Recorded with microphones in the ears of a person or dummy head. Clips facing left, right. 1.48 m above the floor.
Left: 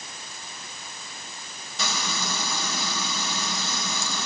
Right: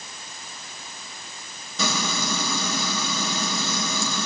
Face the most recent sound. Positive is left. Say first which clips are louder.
# right 5 dB
turn(degrees=-80)